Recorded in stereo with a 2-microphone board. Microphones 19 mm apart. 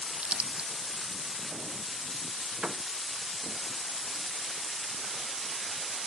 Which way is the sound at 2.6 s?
60° right (ahead or behind).